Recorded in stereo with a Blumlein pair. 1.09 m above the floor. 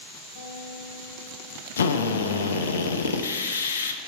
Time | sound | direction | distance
0.3 | a guitar | 50° left | 3 m
1.8 | a drill | 65° left | 0.6 m